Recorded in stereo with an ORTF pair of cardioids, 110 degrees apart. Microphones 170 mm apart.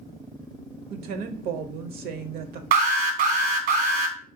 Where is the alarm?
65° right, 0.9 m.